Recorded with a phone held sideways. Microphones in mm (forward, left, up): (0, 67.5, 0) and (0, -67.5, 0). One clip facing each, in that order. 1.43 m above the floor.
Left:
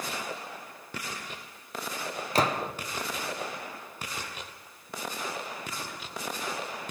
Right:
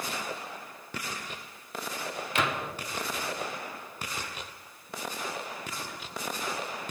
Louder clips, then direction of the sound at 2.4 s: Left 4 dB; 35° left (ahead or behind).